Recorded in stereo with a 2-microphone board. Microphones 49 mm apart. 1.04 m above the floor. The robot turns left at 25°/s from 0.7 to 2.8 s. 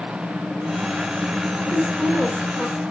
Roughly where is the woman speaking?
Right.